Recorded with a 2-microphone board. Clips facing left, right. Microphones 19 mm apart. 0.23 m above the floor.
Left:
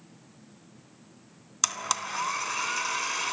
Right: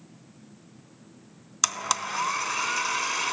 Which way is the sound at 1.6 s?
10° right (ahead or behind).